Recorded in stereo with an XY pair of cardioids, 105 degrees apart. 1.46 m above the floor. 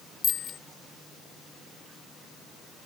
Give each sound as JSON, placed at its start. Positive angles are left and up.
{"t": 0.2, "sound": "a bicycle bell", "azimuth_deg": 60}